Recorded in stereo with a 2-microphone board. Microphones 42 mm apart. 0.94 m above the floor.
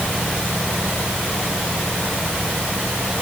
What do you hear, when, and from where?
Only background noise.